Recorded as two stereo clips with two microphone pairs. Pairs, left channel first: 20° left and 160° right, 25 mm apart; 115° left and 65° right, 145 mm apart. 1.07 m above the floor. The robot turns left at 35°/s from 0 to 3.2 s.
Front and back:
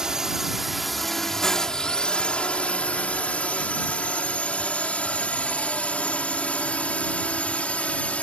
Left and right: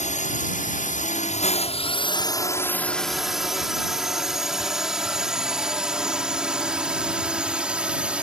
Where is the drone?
140° left; by 8.2 s 15° left.